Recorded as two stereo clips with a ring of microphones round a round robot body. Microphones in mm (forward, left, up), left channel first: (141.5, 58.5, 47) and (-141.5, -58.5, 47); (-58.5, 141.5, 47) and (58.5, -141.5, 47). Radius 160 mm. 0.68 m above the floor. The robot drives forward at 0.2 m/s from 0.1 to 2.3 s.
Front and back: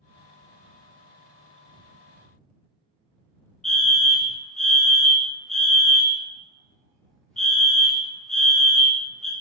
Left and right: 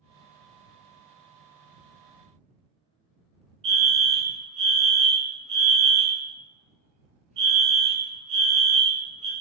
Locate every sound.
3.6 s a fire alarm: 65° right, 1.5 m